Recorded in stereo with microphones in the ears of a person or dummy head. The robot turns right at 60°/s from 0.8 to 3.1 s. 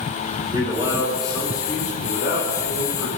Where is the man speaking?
25° right, 6 m; by 3.2 s 115° left, 6 m.